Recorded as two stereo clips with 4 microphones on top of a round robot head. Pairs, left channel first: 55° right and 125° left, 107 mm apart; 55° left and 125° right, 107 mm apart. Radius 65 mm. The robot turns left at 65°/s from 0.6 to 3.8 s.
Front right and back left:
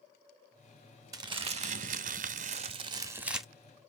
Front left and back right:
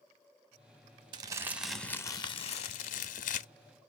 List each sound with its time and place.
1.1 s crumpling: 175° right, 1.0 m; by 3.5 s 35° left, 1.0 m